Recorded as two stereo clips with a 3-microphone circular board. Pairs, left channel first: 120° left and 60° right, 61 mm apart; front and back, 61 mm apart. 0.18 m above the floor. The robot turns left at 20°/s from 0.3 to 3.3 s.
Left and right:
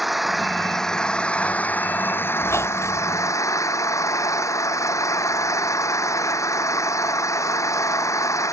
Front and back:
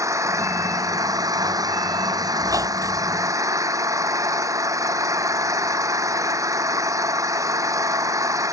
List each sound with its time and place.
0.0 s an engine running: 145° right; by 8.5 s 155° left
2.4 s a squeak: 165° left; by 3.2 s 150° left